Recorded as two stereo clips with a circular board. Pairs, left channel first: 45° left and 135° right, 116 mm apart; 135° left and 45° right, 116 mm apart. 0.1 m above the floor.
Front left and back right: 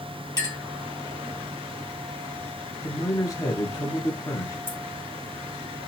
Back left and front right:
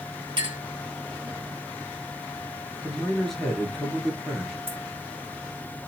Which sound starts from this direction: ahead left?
A man speaking, at 2.8 s.